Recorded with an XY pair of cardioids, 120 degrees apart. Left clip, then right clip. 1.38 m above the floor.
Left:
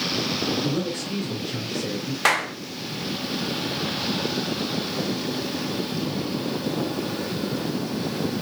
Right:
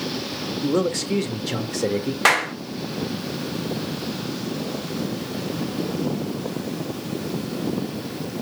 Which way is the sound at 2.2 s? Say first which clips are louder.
Right 3 dB; 15° right.